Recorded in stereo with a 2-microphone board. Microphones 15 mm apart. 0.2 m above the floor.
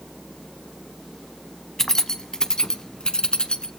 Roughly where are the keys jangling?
Left.